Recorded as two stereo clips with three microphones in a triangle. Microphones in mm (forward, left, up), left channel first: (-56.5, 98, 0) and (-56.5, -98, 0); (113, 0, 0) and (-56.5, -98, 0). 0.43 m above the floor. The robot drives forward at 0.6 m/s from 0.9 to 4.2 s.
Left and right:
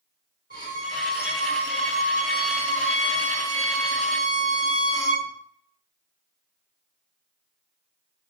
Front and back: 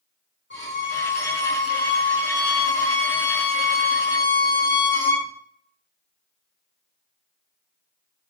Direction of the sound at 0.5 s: 50° left.